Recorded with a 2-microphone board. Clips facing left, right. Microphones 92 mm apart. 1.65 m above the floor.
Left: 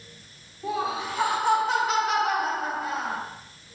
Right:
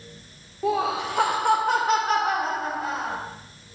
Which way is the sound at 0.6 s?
80° right.